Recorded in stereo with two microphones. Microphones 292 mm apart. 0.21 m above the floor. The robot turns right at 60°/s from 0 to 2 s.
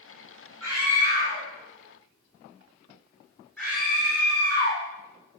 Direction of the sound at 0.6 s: 60° right (ahead or behind).